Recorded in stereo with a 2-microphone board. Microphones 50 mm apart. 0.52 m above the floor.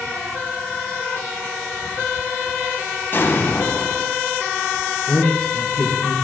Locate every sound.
3.1 s an explosion: 45° left (ahead or behind), 3 m
5.1 s a man speaking: 35° left (ahead or behind), 3.5 m